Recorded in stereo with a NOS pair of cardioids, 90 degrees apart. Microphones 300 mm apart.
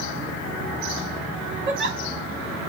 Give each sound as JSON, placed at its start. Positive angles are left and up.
{"t": 1.7, "sound": "a giggle", "azimuth_deg": -40, "distance_m": 1.8}